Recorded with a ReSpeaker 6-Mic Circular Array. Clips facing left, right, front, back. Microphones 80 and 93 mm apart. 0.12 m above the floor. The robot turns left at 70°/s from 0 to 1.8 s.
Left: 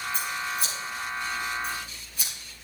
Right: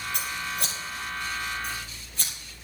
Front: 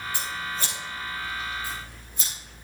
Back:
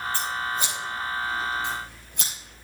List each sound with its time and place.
0.1 s scissors: 75° right, 3 m; by 2.3 s 170° left, 3 m